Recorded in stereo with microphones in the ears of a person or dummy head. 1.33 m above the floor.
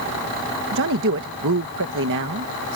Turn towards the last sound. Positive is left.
turn(degrees=-65)  # may be behind; listen again after turning